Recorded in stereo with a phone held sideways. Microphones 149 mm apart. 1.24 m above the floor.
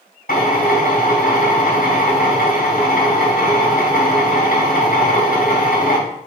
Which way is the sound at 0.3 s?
80° left.